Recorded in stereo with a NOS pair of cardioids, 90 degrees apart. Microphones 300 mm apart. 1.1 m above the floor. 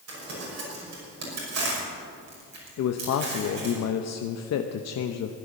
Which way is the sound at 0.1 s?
60° right.